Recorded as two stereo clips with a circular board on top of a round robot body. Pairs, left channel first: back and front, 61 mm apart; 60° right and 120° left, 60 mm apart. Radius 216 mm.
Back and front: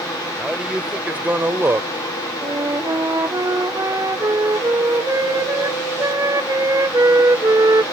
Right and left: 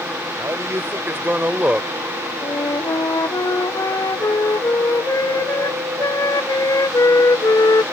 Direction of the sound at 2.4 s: 30° right.